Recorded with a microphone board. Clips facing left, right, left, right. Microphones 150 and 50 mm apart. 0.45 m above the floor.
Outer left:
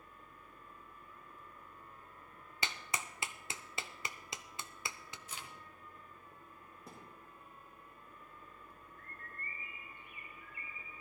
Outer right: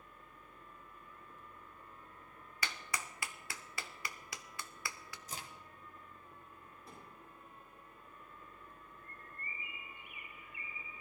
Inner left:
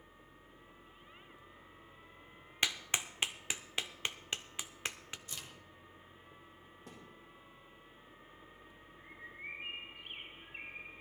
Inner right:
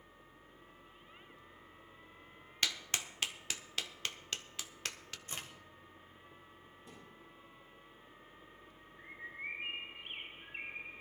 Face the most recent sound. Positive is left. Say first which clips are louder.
# outer left 2 dB, inner right 4 dB
turn(degrees=-15)  # may be behind; listen again after turning